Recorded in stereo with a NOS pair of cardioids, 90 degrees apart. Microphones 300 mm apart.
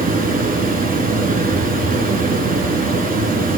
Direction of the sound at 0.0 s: 30° right.